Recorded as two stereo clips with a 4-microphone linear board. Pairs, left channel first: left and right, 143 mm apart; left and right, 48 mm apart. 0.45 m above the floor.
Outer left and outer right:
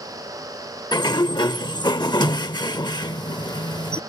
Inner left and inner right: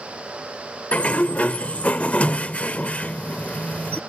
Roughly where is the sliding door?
Left.